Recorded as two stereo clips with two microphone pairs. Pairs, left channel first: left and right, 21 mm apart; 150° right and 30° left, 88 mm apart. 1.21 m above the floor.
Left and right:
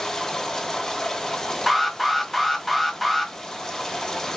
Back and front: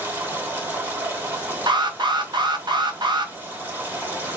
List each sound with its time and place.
0.0 s running water: 65° left, 0.9 m
1.7 s an alarm: straight ahead, 0.7 m